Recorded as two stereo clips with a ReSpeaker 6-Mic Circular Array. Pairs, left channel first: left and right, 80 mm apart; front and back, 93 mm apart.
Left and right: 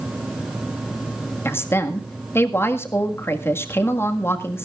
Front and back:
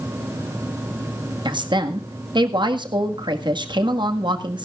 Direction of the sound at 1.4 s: 150° left.